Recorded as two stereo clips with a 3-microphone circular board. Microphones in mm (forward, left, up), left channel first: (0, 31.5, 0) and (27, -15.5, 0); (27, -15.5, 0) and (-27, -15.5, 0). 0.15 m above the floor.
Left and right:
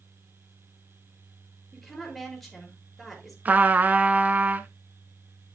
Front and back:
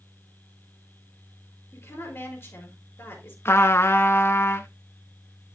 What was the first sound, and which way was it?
A woman speaking, 35° left.